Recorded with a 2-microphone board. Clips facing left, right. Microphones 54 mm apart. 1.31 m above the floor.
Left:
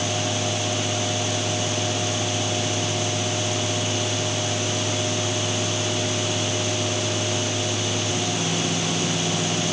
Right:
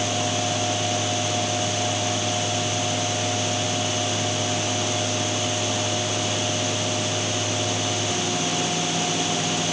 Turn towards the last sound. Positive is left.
No sound to turn to.